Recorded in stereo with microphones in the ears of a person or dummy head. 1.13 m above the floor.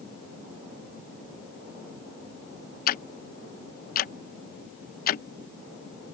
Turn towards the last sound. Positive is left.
turn(degrees=45)  # may be behind; listen again after turning